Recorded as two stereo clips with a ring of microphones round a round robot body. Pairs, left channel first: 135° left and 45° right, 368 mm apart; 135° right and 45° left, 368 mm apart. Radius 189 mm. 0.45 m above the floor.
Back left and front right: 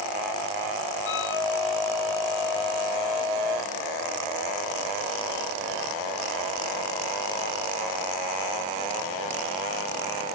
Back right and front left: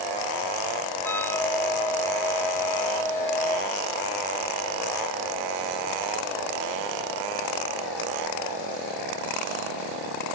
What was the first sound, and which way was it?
A flute, 140° left.